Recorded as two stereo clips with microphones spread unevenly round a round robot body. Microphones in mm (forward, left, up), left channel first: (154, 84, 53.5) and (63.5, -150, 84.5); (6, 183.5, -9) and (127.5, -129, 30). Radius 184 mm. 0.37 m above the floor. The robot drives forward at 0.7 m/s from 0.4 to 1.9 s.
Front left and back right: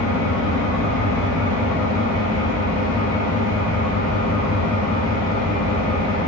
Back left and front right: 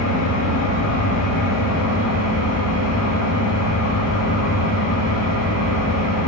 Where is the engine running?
80° left, 4 m; by 6.3 s 95° left, 4 m.